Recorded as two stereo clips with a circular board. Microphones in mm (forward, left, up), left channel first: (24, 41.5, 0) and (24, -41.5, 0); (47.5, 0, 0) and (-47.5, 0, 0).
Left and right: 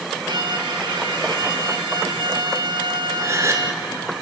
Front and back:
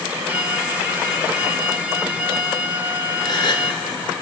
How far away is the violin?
About 1.4 m.